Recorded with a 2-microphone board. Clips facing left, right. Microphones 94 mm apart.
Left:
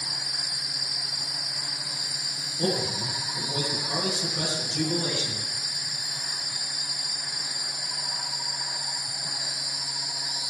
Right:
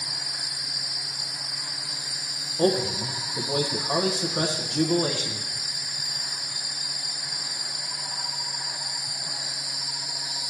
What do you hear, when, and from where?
2.6 s a man speaking: 50° right (ahead or behind), 1.0 m